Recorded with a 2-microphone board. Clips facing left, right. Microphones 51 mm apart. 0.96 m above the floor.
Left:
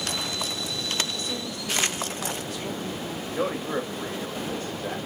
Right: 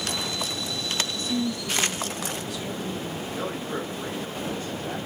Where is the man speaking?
50° left (ahead or behind), 1.9 m.